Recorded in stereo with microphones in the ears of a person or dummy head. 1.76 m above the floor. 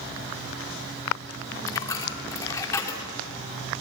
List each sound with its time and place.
1.7 s a dropped coin: 20° left (ahead or behind), 2.5 m